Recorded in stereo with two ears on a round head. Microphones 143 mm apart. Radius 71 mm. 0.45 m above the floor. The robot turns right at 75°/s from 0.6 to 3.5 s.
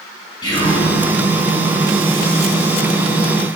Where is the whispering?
25° left (ahead or behind), 3.5 m; by 0.9 s 45° left (ahead or behind), 3.5 m.